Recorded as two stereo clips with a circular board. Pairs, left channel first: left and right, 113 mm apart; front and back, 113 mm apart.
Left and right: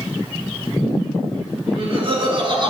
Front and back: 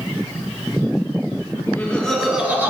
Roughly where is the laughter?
Ahead right.